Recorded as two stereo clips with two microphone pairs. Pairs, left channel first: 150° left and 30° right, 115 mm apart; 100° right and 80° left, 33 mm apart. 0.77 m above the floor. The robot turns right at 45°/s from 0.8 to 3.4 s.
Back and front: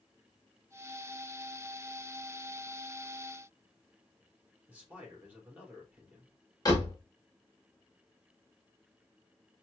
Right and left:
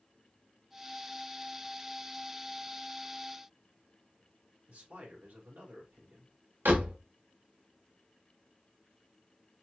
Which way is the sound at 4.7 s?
45° left.